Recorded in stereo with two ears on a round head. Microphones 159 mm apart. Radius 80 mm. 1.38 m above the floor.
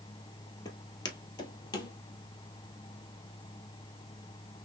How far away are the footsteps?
About 1.5 m.